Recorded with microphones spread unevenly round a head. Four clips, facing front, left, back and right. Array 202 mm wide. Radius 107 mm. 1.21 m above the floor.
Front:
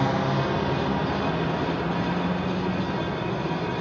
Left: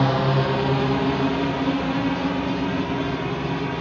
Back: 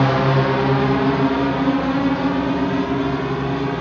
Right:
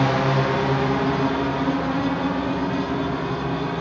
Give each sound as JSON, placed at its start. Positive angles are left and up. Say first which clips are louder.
{"t": 0.0, "sound": "a drone", "louder": "right 1 dB, back 7 dB", "azimuth_deg": 175}